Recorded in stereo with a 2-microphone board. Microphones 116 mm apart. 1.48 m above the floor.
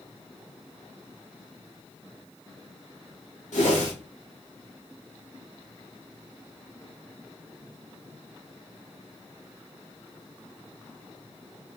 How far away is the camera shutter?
I don't hear a camera shutter.